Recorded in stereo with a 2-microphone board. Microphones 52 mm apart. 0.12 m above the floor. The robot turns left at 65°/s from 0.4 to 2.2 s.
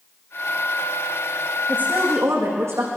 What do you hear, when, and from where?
1.7 s a woman speaking: 30° right, 7.5 m; by 2.9 s 65° right, 7.5 m